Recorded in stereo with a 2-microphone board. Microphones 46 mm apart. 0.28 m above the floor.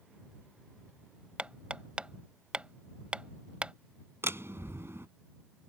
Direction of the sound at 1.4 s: 25° right (ahead or behind).